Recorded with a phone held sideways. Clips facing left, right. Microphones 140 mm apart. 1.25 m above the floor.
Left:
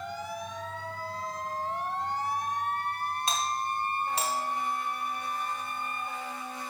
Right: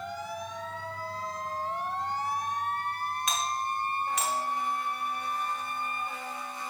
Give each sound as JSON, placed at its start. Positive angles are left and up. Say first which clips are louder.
{"t": 3.3, "sound": "a doorbell", "louder": "even", "side_deg": 30, "distance_m": 1.4}